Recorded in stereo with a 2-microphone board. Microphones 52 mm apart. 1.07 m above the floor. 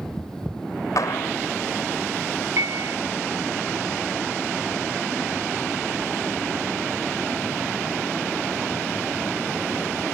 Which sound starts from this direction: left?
A clap, at 1.0 s.